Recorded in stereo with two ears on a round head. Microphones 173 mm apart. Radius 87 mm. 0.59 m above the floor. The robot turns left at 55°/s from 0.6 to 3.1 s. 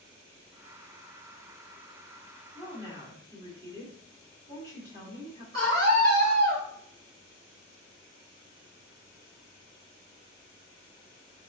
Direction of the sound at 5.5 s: 55° right (ahead or behind).